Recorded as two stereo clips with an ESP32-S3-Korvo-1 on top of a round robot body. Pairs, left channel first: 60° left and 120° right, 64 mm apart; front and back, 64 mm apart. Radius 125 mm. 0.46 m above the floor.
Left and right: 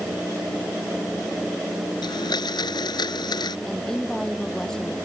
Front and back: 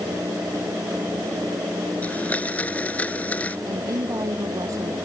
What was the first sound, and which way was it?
A blender, 70° left.